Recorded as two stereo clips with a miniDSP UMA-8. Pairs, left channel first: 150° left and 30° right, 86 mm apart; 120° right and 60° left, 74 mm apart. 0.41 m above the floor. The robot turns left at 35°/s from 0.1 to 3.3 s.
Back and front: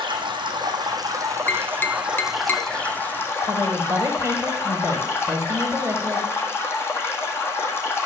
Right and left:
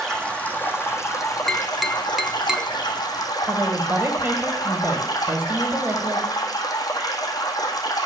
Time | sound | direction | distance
0.0 | running water | 40° right | 1.6 m
1.5 | tapping | 170° left | 0.6 m
3.4 | a woman speaking | 15° left | 1.5 m